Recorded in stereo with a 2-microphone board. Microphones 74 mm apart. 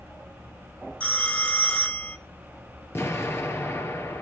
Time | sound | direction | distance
1.0 | a phone ringing | 20° left (ahead or behind) | 0.9 m
3.0 | an explosion | 35° left (ahead or behind) | 2.5 m